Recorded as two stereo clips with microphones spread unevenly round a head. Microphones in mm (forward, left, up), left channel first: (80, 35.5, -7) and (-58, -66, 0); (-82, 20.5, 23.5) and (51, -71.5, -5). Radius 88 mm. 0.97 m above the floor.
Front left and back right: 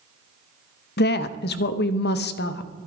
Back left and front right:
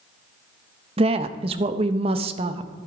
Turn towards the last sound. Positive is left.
turn(degrees=15)